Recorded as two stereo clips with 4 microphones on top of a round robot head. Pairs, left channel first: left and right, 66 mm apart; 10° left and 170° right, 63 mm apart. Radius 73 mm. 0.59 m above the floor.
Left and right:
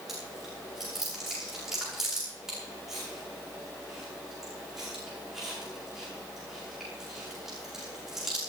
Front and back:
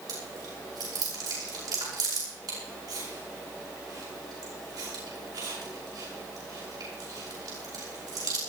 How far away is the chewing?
About 8.5 m.